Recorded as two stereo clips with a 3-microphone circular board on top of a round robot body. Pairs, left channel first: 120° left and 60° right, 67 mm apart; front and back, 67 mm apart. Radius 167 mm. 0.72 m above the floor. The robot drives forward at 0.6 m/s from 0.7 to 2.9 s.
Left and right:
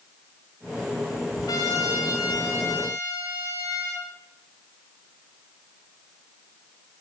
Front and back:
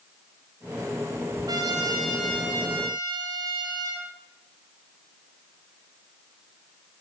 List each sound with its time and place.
1.5 s a trumpet: 150° left, 1.2 m; by 4.1 s 165° left, 2.0 m